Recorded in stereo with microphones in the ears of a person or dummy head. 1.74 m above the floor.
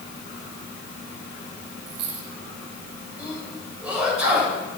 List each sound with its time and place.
1.9 s a dropped coin: 60° right (ahead or behind), 4.5 m
3.2 s a sneeze: centre (ahead or behind), 7.5 m